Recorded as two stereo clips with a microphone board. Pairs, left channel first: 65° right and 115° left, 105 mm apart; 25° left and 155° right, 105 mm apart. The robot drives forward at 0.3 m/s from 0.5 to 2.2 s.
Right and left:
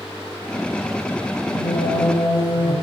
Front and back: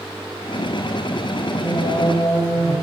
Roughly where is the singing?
Ahead right.